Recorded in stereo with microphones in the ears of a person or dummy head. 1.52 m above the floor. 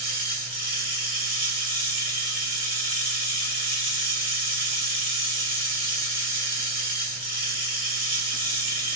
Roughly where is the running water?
Right.